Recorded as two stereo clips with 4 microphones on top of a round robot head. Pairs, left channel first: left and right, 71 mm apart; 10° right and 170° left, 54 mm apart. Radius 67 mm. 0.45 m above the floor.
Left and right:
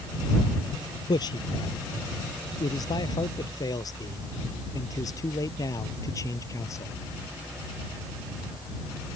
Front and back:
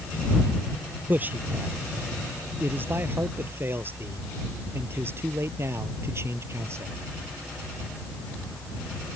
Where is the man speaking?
115° left; by 6.9 s 135° left.